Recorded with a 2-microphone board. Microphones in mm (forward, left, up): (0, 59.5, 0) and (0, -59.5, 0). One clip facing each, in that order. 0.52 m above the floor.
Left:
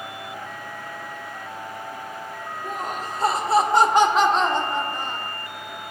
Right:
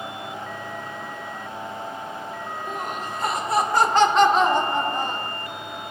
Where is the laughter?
45° left (ahead or behind), 1.9 m; by 5.3 s 45° right (ahead or behind), 1.2 m.